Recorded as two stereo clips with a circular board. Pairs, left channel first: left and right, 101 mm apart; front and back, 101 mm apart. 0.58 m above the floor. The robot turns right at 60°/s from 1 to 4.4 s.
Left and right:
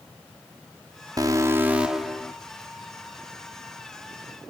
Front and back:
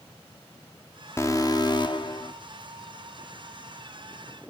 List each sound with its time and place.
1.2 s an alarm: 50° right, 0.8 m; by 2.3 s 15° left, 0.8 m